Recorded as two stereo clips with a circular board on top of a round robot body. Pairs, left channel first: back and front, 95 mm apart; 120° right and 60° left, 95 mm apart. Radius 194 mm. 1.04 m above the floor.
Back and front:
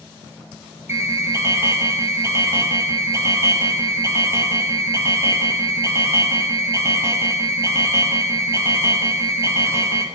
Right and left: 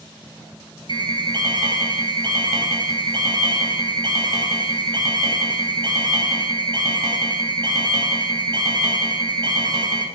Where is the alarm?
60° left, 0.9 m.